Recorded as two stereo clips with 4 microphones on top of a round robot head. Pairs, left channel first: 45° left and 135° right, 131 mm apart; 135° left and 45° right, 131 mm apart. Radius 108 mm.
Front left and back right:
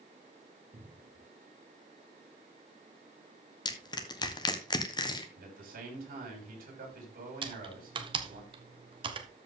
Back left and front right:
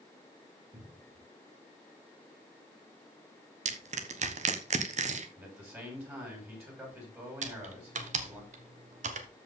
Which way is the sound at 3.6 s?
10° right.